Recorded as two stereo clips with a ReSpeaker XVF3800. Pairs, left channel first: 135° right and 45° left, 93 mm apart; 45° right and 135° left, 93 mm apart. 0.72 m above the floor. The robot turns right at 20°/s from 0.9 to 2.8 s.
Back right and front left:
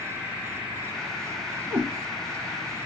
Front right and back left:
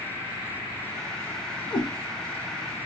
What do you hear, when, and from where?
1.7 s a cat meowing: 15° right, 1.4 m